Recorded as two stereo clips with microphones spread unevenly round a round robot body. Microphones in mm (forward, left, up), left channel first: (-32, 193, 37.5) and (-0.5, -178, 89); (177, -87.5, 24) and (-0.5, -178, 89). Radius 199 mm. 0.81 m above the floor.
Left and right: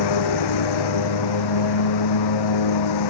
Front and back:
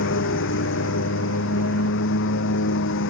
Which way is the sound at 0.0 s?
65° left.